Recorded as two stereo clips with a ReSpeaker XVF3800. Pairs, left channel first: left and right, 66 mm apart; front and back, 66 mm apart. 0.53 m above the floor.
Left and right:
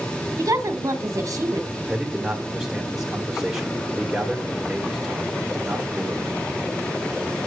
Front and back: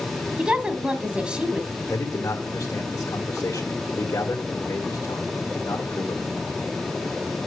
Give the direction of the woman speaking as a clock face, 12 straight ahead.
4 o'clock.